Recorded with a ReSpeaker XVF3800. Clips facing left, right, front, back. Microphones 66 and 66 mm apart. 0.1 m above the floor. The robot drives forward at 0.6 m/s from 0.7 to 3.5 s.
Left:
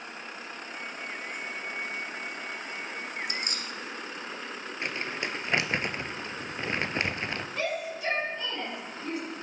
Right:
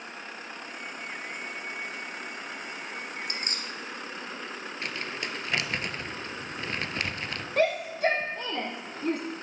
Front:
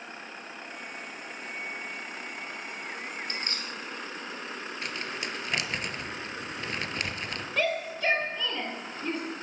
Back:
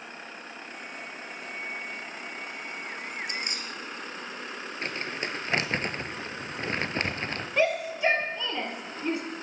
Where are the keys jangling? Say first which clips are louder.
Left 1 dB, back 1 dB; 110° right, 1.6 m; by 3.7 s 115° right, 1.6 m.